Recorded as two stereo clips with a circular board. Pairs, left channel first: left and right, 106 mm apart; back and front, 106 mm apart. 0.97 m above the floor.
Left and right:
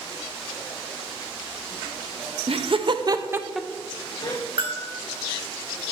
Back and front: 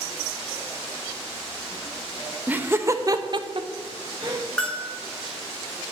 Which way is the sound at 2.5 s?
75° right.